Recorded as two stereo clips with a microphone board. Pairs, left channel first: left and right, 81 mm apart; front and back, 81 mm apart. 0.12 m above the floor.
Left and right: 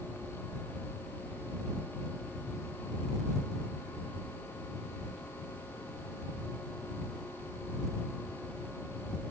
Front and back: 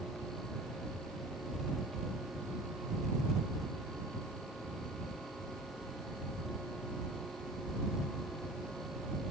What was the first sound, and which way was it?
Only background noise.